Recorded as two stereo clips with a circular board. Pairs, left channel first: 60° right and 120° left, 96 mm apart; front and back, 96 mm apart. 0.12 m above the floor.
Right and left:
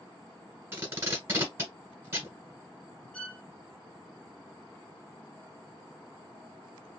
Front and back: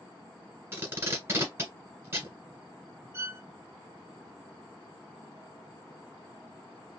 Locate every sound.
0.7 s tape being pulled: 155° left, 1.5 m
3.1 s a violin: 135° right, 0.9 m